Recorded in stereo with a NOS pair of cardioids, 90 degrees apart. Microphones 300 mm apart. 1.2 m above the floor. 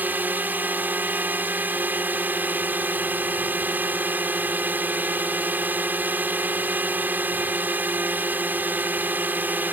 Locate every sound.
0.0 s a drone: 5° right